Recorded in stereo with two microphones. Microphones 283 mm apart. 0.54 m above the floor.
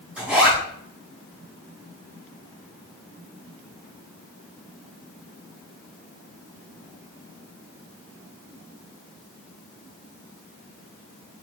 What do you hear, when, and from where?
0.2 s a zipper: 5° right (ahead or behind), 4 m